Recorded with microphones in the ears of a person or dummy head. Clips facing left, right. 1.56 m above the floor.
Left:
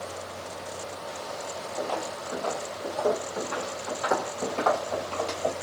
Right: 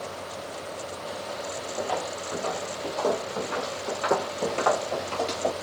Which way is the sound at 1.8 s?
10° right (ahead or behind).